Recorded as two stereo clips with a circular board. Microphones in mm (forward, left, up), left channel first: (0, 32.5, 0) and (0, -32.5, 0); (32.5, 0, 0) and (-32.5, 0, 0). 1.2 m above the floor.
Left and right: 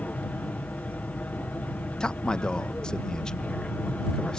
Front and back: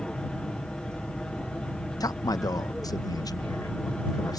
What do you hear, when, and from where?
0.0 s an aircraft: 60° left
2.0 s a man speaking: 10° left